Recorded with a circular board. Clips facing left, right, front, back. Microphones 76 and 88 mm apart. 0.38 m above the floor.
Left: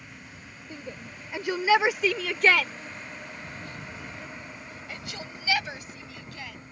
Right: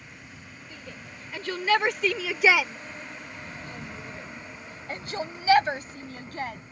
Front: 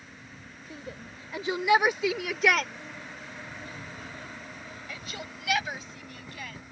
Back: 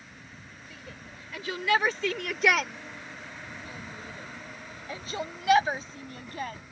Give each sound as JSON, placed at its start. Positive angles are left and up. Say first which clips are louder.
{"t": 0.7, "sound": "a shout", "louder": "left 5 dB, front 6 dB", "azimuth_deg": 40}